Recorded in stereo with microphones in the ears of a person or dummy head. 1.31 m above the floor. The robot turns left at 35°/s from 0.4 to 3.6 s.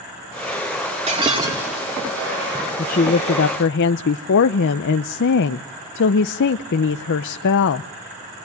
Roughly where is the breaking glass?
Right.